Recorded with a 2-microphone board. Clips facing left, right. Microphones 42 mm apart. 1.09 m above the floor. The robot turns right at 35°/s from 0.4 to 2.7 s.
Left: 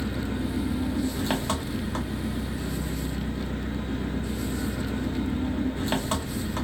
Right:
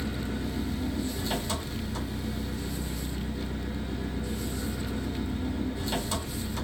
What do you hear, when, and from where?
0.0 s an engine running: 40° left, 0.7 m; by 6.7 s 125° left, 0.7 m